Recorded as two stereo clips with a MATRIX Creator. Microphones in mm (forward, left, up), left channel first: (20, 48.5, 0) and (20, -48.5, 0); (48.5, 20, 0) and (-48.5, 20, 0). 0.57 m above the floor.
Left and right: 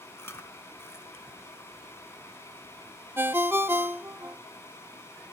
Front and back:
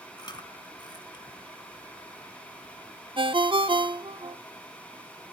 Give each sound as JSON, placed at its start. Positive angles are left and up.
{"t": 0.2, "sound": "chewing", "azimuth_deg": 30, "distance_m": 1.0}
{"t": 3.2, "sound": "a ringtone", "azimuth_deg": -155, "distance_m": 0.5}